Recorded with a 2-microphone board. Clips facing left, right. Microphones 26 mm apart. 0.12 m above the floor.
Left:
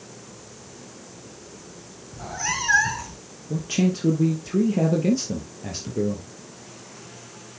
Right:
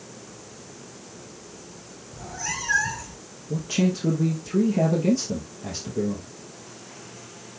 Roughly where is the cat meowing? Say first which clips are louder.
Left 4 dB; left.